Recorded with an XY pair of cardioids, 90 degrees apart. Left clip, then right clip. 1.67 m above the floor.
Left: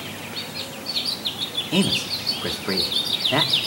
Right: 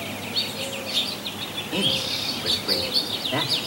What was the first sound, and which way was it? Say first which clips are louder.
A man speaking: right 1 dB; 60° left.